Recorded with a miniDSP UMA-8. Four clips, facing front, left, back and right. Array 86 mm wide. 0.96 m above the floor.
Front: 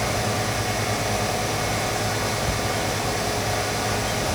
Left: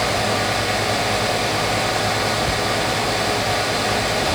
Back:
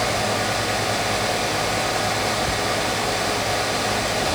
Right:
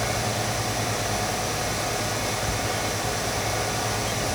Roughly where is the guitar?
I don't hear a guitar.